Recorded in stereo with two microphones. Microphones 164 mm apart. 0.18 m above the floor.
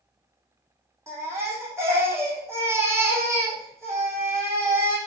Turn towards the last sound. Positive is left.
turn(degrees=-15)  # may be behind; listen again after turning